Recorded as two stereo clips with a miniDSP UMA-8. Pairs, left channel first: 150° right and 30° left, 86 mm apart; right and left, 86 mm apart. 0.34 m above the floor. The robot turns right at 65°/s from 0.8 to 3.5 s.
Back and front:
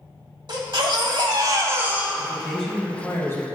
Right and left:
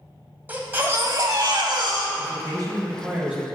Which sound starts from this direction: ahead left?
A baby crying, at 0.5 s.